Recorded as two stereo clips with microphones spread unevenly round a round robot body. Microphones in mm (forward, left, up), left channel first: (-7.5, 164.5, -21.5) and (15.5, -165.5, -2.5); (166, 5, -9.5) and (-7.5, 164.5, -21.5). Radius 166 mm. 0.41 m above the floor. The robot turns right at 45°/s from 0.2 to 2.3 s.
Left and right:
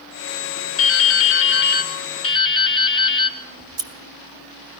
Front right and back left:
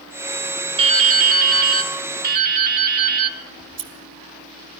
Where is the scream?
No scream in this recording.